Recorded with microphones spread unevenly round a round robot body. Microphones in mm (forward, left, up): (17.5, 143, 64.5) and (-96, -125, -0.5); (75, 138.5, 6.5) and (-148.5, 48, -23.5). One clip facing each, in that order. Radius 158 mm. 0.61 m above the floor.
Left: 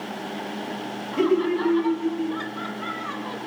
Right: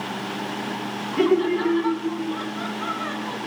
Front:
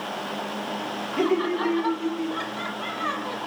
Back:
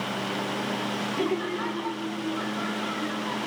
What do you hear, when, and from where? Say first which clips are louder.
1.1 s laughter: right 1 dB, front 6 dB; 25° right, 1.4 m; by 3.4 s 5° left, 3 m